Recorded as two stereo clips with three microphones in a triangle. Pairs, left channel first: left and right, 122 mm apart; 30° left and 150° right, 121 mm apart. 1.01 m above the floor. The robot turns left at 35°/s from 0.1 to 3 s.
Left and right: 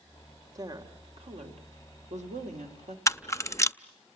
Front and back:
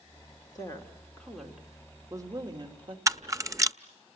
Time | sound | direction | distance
0.6 | a woman speaking | 30° right | 3.5 m
3.1 | a camera shutter | 155° left | 0.5 m